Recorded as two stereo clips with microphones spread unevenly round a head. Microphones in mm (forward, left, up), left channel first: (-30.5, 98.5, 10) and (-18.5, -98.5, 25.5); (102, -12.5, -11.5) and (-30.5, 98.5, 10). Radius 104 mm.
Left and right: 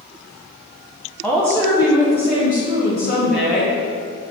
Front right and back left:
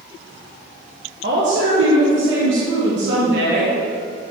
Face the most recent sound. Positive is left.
turn(degrees=130)